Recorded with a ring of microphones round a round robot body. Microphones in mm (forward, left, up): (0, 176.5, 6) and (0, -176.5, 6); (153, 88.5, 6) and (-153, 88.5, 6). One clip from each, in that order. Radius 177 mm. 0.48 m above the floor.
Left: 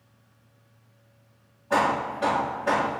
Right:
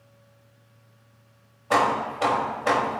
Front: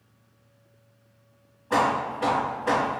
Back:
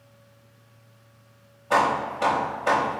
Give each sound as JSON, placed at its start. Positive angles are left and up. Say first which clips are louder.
{"t": 1.7, "sound": "hammering", "louder": "right 2 dB, back 2 dB", "azimuth_deg": -125, "distance_m": 0.9}